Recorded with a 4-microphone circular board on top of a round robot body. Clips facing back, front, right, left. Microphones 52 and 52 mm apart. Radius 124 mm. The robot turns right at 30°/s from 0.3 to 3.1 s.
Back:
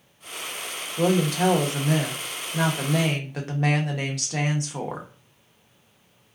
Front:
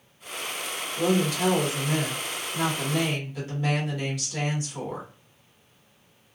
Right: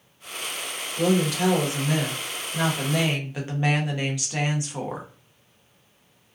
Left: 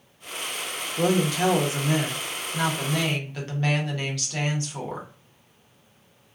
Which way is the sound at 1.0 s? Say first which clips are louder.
Back 2 dB, even; 135° left.